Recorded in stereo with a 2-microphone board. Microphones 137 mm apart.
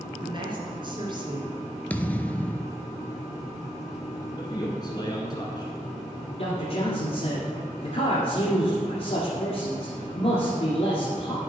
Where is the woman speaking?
35° right (ahead or behind), 1.8 m.